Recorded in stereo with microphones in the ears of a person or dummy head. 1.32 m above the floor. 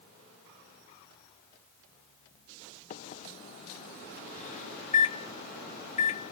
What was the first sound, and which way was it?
A microwave, 40° left (ahead or behind).